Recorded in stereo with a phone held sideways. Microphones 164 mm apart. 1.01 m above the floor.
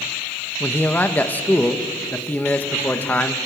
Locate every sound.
0.6 s a man speaking: 10° left (ahead or behind), 1.3 m